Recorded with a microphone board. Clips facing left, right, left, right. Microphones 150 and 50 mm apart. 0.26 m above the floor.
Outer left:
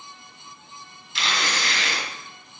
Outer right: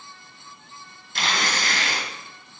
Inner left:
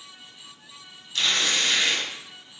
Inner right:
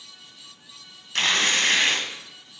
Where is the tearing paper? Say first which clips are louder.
Outer right 1 dB, inner right 3 dB; 55° right (ahead or behind), 1.5 m.